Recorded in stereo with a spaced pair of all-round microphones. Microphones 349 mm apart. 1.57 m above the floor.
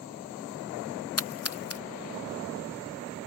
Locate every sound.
1.2 s a splash: 45° left (ahead or behind)